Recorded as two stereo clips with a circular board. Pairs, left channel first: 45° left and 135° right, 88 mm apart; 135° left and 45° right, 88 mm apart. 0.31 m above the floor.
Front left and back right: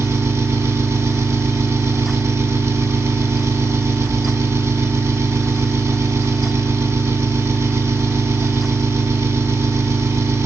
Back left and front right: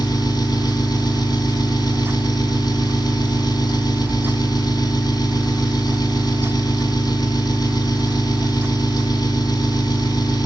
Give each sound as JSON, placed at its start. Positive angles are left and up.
{"t": 0.0, "sound": "an engine running", "azimuth_deg": 170, "distance_m": 2.0}